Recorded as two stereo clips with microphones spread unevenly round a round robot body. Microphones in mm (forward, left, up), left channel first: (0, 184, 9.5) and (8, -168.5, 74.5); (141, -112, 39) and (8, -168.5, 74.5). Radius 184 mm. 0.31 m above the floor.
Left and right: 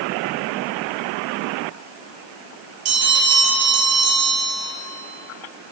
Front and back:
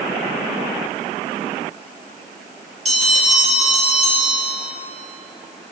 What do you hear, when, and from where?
2.9 s a bell: 120° right, 2.5 m